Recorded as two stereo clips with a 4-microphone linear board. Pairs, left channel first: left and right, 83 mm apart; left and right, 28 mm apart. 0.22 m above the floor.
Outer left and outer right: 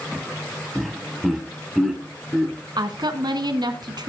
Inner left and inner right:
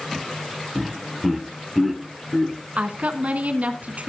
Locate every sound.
0.8 s laughter: centre (ahead or behind), 1.3 m; by 2.5 s 5° right (ahead or behind), 3 m
2.8 s a woman speaking: 55° right (ahead or behind), 2 m